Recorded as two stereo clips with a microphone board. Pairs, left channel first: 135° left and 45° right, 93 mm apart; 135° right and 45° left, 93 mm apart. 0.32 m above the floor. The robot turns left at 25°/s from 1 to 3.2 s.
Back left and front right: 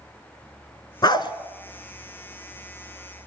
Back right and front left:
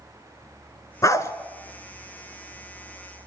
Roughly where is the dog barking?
Behind.